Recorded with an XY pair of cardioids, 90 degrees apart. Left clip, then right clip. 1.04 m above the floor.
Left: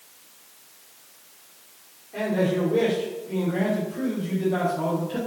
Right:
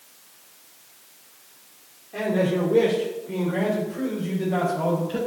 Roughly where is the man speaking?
Ahead right.